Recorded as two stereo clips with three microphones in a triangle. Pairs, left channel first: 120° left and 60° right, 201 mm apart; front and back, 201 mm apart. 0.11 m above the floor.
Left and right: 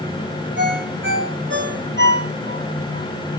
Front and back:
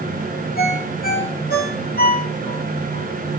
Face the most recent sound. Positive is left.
turn(degrees=-40)